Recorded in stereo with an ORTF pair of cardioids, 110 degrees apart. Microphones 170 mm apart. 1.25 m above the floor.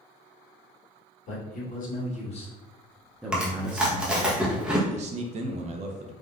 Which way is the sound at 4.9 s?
40° right.